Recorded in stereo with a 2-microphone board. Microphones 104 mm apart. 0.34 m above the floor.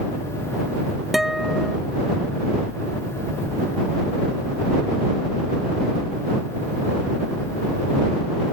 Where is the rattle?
I don't hear a rattle.